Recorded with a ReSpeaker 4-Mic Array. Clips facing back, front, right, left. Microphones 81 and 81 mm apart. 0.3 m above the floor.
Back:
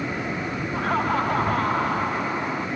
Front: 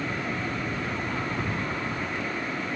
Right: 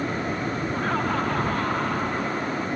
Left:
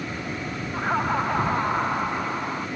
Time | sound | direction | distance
0.7 | laughter | 165° left | ?